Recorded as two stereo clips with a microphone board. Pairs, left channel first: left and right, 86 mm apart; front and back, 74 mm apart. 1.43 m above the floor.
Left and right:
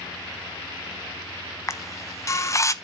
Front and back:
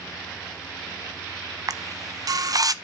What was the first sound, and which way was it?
A camera shutter, 145° left.